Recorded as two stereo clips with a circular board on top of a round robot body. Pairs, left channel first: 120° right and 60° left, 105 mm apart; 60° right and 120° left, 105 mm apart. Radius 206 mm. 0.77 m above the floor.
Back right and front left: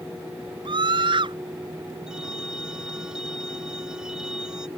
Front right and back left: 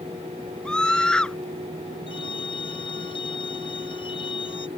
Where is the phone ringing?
25° right.